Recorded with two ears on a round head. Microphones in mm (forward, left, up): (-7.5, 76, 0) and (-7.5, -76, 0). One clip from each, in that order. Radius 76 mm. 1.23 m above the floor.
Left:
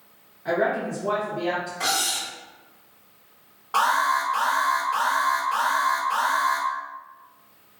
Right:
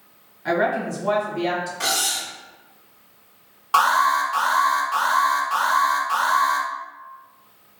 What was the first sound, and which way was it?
A woman speaking, 75° right (ahead or behind).